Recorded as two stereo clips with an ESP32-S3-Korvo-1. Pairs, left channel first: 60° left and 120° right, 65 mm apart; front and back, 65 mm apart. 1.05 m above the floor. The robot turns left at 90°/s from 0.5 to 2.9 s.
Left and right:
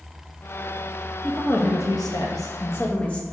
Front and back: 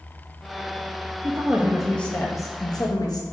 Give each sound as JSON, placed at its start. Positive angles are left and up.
{"t": 1.2, "sound": "a woman speaking", "azimuth_deg": 140, "distance_m": 1.2}